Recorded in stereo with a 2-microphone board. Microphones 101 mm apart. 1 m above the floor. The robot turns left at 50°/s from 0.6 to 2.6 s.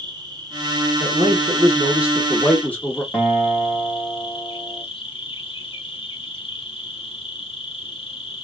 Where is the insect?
140° right, 1.1 m; by 8.4 s 120° left, 1.1 m.